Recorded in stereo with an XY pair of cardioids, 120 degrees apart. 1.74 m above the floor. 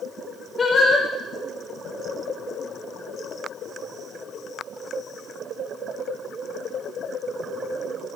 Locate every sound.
0.6 s singing: 30° left, 0.6 m